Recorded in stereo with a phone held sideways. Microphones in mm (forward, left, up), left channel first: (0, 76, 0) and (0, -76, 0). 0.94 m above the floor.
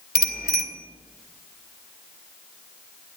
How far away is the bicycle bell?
About 2 m.